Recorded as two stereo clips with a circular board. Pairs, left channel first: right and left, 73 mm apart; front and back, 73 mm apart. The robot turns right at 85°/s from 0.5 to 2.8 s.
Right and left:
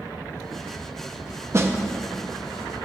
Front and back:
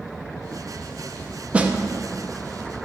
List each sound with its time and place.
1.5 s a snare drum: 115° left, 0.6 m; by 1.8 s 130° left, 0.6 m